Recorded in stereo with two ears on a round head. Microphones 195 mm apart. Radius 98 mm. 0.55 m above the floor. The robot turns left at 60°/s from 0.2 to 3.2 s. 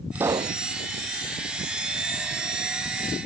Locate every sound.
0.1 s a pop: 10° right (ahead or behind); by 0.6 s 30° right (ahead or behind)